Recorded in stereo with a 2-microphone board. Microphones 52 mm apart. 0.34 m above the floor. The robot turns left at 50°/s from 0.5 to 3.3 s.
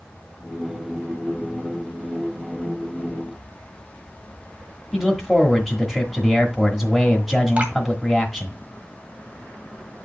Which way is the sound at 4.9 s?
Centre (ahead or behind).